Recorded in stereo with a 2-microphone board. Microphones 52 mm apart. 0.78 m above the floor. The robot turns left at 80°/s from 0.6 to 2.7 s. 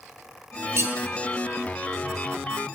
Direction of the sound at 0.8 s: 50° right (ahead or behind).